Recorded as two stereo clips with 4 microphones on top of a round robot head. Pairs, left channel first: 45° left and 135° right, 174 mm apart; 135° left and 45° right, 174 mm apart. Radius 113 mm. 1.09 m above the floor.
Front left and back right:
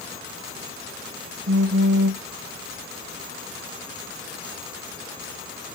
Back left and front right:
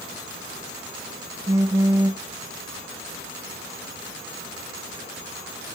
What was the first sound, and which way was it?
A phone buzzing, 115° right.